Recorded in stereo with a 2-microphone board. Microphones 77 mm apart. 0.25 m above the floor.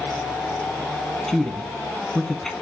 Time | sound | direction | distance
1.3 | a woman speaking | 5° left (ahead or behind) | 2.0 m